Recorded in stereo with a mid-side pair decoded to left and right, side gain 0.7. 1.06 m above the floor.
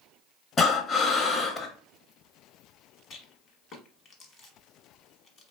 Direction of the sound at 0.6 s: 25° left.